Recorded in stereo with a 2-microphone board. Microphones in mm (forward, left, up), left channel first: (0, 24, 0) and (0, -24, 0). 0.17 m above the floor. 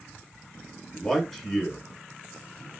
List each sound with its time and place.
0.9 s a man speaking: centre (ahead or behind), 1.2 m